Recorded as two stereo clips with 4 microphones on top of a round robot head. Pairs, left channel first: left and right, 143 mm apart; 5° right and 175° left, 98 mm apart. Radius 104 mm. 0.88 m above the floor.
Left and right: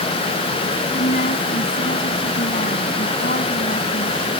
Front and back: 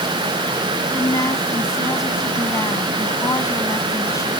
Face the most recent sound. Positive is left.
turn(degrees=50)